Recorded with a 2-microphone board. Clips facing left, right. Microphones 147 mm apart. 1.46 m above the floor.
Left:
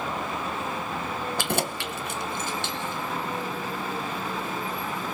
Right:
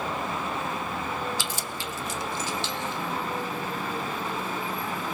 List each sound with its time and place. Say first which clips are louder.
1.4 s keys jangling: left 6 dB; 55° left (ahead or behind), 0.6 m; by 3.0 s 50° left (ahead or behind), 2.5 m